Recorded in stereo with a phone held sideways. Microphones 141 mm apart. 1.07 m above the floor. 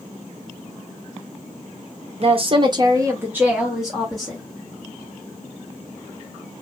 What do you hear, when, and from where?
2.2 s a woman speaking: 45° right (ahead or behind), 0.8 m; by 4.4 s 5° left (ahead or behind), 1.4 m